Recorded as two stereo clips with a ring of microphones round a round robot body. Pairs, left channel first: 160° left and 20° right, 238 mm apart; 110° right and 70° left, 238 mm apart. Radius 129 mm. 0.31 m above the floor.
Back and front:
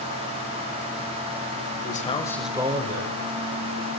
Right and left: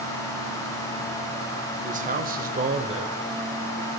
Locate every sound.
1.8 s a man speaking: 115° left, 1.5 m; by 3.2 s straight ahead, 1.6 m